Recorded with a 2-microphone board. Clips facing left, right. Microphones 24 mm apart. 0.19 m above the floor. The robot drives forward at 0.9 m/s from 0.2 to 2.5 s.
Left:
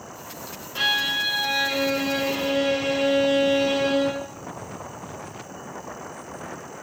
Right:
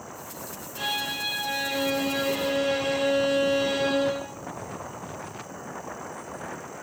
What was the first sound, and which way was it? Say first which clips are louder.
A violin: left 7 dB; 55° left (ahead or behind).